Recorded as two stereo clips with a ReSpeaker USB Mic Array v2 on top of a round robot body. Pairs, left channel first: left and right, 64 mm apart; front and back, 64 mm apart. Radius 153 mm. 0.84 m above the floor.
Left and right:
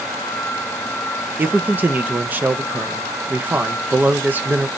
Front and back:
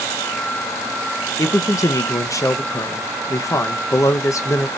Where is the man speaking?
30° right, 0.6 m.